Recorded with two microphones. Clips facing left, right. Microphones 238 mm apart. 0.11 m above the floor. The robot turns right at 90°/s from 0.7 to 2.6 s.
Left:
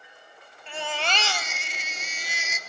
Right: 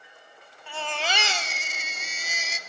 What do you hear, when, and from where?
0.7 s a baby crying: 155° left, 0.8 m; by 2.6 s 35° right, 0.8 m